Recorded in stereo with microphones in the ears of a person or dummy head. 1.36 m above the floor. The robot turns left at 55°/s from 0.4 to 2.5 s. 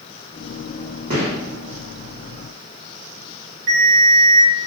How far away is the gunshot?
About 1.1 m.